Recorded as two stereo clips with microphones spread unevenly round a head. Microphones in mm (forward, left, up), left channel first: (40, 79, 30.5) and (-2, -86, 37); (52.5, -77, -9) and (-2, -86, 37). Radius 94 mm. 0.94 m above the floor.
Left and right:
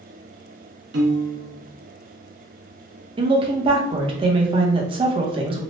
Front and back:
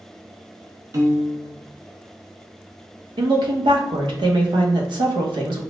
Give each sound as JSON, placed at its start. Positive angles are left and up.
{"t": 0.9, "sound": "a piano", "azimuth_deg": -140, "distance_m": 0.7}
{"t": 3.2, "sound": "a woman speaking", "azimuth_deg": -165, "distance_m": 0.7}